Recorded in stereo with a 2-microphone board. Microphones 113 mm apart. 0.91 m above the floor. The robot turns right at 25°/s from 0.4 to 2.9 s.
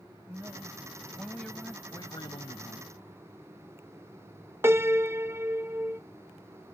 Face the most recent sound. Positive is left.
turn(degrees=-20)  # may be behind; listen again after turning